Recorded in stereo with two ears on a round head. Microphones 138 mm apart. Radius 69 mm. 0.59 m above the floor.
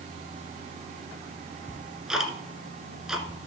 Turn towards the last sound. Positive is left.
turn(degrees=-5)  # may be behind; listen again after turning